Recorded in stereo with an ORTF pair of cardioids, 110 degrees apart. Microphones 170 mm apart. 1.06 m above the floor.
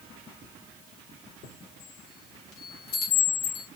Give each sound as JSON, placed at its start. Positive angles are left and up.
{"t": 1.4, "sound": "a chime", "azimuth_deg": 70, "distance_m": 3.0}